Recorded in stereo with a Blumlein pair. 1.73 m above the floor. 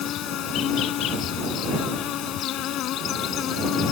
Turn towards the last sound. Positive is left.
turn(degrees=35)